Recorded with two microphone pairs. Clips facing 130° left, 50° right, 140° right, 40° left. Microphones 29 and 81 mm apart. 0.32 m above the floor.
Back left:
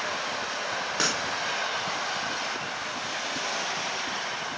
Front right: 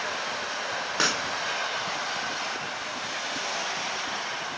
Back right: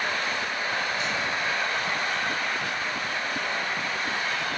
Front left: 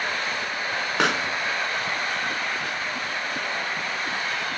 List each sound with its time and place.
1.0 s a pop: 30° left, 0.5 m